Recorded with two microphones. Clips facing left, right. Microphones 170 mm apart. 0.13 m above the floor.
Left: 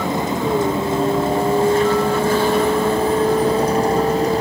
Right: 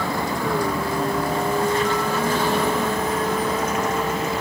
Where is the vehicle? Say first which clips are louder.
Left 4 dB; 20° left (ahead or behind); by 4.4 s 35° left (ahead or behind).